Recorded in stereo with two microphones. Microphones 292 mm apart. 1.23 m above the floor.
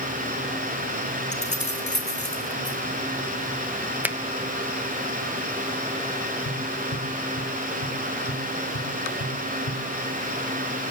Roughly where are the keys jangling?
Left.